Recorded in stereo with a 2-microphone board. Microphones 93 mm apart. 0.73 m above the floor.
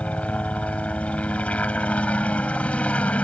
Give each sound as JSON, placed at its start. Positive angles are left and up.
{"t": 0.0, "sound": "a helicopter", "side_deg": 15}